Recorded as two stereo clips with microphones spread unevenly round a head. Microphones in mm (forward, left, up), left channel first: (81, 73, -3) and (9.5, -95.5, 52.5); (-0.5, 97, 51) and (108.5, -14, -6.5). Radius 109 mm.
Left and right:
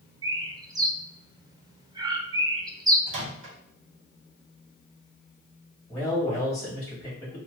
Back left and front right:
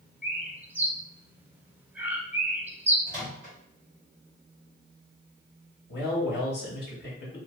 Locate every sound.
0.2 s a bird: 30° right, 0.6 m
3.1 s a microwave: 140° right, 0.9 m
5.9 s a man speaking: 125° left, 1.5 m